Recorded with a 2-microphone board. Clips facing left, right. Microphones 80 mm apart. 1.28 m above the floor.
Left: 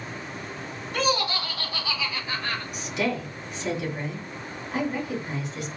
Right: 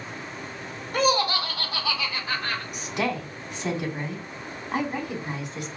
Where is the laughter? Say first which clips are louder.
Right 3 dB; 45° right (ahead or behind), 1.6 m; by 2.6 s 70° right (ahead or behind), 2.5 m.